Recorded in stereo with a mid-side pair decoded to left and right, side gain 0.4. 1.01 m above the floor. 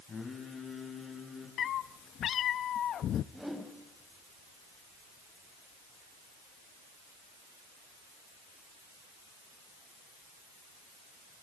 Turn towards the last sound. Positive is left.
turn(degrees=-5)